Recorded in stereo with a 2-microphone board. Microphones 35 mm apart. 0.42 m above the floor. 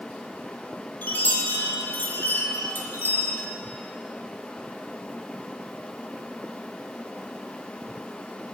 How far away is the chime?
About 1.0 m.